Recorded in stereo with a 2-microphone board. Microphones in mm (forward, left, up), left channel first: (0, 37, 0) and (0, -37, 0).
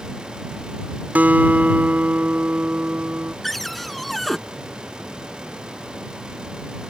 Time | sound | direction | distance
1.1 | a guitar | 20° right (ahead or behind) | ?
3.4 | a cupboard door | centre (ahead or behind) | ?